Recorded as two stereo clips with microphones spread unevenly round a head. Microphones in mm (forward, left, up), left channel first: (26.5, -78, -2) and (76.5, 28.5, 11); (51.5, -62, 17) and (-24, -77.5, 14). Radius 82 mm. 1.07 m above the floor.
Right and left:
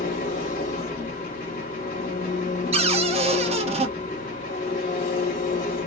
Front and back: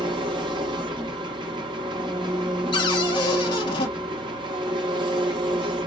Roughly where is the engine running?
Behind right.